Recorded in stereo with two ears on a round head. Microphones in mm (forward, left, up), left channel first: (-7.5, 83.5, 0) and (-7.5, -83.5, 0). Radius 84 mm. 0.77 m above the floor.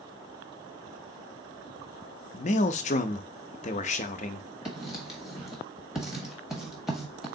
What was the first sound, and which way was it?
A man speaking, 40° left (ahead or behind).